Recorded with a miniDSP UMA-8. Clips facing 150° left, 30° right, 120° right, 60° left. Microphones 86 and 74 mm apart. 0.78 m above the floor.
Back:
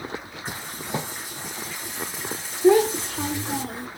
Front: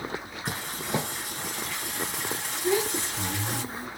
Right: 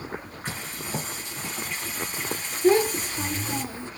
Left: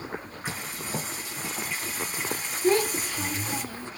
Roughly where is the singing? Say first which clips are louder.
Front 1 dB, even; ahead right.